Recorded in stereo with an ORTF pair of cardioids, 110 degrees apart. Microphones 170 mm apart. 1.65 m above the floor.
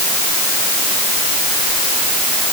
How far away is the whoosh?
I don't hear a whoosh.